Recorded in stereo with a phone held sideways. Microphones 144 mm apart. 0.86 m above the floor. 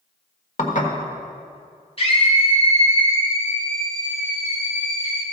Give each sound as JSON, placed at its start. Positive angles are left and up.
{"t": 0.6, "sound": "dishes clattering", "side_deg": 55, "distance_m": 1.6}
{"t": 2.0, "sound": "a scream", "side_deg": 40, "distance_m": 2.5}